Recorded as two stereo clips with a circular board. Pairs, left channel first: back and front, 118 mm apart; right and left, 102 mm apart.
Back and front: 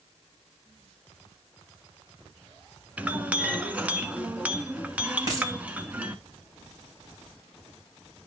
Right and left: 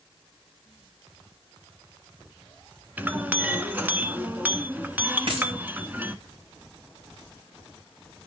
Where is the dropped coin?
55° left, 5 m.